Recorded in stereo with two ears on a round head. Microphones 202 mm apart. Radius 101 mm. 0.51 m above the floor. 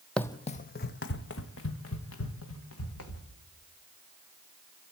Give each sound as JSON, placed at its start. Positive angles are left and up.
{"t": 0.2, "sound": "running footsteps", "side_deg": 5, "distance_m": 0.6}